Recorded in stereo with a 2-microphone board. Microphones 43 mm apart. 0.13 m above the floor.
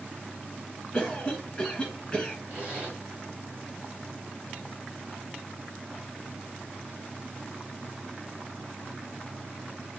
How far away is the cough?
About 1.1 m.